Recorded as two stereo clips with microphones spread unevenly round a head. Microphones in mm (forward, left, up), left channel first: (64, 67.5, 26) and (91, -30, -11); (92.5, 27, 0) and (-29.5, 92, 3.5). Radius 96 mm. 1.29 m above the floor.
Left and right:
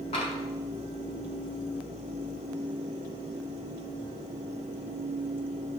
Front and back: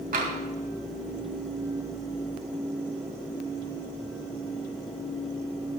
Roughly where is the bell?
No bell in this recording.